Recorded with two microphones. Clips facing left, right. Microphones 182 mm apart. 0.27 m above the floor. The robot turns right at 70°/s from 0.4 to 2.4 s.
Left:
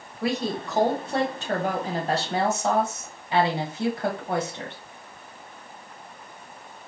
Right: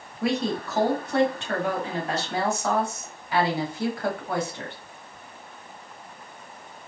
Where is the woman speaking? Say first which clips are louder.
Right 1 dB; straight ahead, 1.2 m; by 4.8 s 140° left, 1.2 m.